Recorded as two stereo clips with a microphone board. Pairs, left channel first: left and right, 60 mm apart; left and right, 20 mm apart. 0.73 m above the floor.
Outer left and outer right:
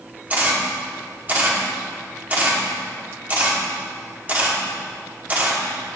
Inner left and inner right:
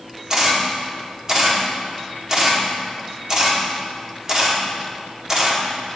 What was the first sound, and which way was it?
A camera shutter, 25° right (ahead or behind).